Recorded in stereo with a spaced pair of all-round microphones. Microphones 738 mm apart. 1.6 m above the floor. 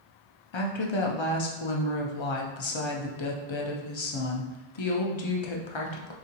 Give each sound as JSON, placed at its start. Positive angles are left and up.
{"t": 0.5, "sound": "a woman speaking", "side_deg": 45, "distance_m": 0.5}